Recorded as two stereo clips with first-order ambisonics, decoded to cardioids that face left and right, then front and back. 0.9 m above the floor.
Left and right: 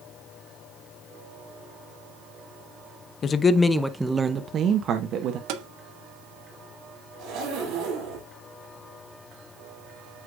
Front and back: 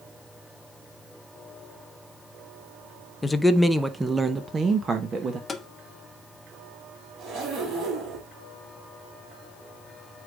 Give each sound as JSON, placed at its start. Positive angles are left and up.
{"t": 3.2, "sound": "a man speaking", "azimuth_deg": 70, "distance_m": 0.7}
{"t": 5.5, "sound": "tapping", "azimuth_deg": -75, "distance_m": 0.9}
{"t": 7.2, "sound": "a zipper", "azimuth_deg": -135, "distance_m": 6.5}